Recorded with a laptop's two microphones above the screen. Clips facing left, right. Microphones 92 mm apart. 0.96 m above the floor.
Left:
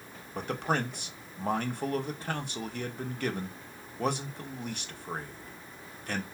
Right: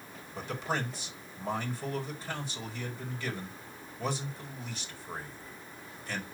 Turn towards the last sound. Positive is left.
turn(degrees=60)  # may be behind; listen again after turning